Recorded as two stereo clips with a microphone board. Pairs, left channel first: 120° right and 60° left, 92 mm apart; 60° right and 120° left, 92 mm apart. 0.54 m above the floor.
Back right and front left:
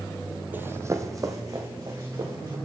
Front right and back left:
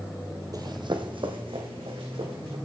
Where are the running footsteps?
120° left, 0.7 m; by 2.5 s 105° left, 3 m.